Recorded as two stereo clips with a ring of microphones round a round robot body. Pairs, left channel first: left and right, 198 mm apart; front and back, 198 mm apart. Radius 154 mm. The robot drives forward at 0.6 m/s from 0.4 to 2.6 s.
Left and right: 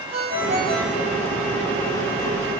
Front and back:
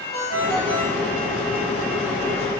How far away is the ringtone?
About 6.5 m.